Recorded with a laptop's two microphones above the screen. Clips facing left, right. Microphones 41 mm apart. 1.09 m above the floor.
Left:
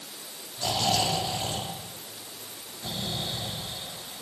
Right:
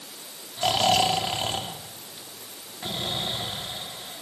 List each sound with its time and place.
0.6 s snoring: 65° right (ahead or behind), 3 m